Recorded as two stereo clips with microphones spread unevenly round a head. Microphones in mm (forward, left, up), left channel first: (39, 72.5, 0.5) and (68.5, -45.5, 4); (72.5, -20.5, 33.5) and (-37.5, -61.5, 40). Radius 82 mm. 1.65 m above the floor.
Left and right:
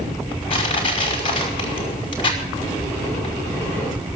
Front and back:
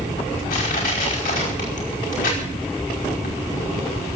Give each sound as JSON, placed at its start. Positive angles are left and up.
{"t": 0.5, "sound": "crushing", "azimuth_deg": 55, "distance_m": 5.0}